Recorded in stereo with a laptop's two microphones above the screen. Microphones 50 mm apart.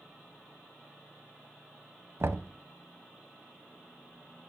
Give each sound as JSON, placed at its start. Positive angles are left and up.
{"t": 2.2, "sound": "knocking", "side_deg": -60, "distance_m": 0.7}